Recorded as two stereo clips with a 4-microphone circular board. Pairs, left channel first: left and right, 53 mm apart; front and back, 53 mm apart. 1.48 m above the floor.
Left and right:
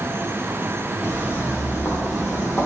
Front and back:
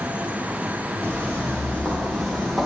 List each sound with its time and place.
1.0 s footsteps: 55° left, 2.5 m; by 2.7 s 85° left, 2.5 m